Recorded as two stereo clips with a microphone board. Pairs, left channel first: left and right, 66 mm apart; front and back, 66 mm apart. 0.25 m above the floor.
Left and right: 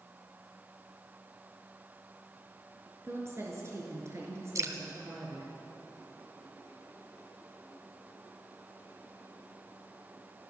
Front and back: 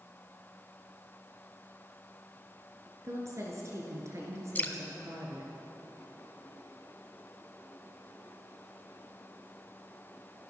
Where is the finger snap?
I don't hear a finger snap.